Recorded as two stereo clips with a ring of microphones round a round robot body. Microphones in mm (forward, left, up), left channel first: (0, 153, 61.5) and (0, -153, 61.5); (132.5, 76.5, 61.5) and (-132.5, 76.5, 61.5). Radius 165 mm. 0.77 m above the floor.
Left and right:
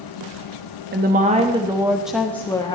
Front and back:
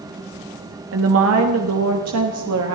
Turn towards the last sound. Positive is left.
turn(degrees=165)